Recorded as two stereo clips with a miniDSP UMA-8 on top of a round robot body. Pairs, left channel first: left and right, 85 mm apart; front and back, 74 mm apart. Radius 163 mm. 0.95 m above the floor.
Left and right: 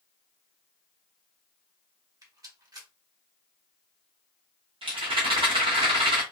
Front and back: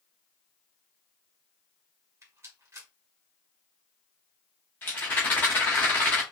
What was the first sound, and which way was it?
A rattle, 130° right.